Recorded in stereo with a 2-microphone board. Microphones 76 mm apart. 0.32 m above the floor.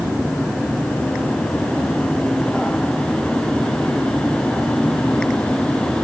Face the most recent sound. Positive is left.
No sound to turn to.